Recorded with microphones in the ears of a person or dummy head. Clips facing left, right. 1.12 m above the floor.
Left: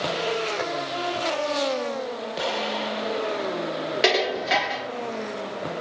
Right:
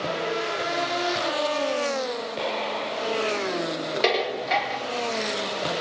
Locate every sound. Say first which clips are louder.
2.4 s an explosion: left 3 dB; centre (ahead or behind), 1.3 m
4.0 s dishes clattering: left 2 dB; 5° left (ahead or behind), 2.5 m